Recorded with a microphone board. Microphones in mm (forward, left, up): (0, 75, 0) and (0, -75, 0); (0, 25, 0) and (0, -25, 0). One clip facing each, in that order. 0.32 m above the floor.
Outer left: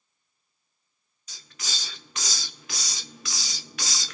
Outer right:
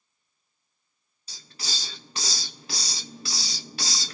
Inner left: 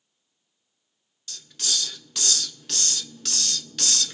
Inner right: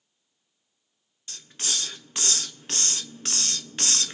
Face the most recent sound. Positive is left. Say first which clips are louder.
# outer right 2 dB, inner left 1 dB
turn(degrees=-35)  # may be behind; listen again after turning